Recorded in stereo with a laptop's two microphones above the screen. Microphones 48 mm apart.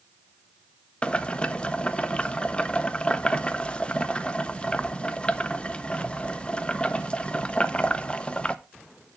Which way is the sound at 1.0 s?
20° left (ahead or behind).